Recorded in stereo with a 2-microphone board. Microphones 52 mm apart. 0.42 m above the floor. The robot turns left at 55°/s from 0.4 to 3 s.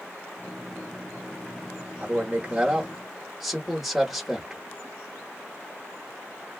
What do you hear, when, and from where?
2.0 s a man speaking: 120° right, 1.1 m; by 4.6 s 175° right, 1.1 m